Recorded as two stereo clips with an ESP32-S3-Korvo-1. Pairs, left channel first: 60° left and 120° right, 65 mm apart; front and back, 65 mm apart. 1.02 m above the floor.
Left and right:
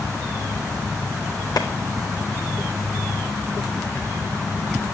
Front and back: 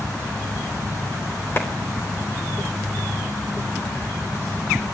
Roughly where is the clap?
Ahead left.